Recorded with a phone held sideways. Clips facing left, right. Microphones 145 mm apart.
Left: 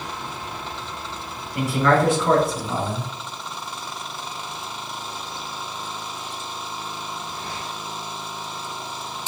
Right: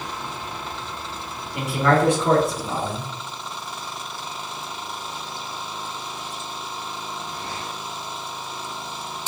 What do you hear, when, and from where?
1.5 s a man speaking: 20° right (ahead or behind), 2.5 m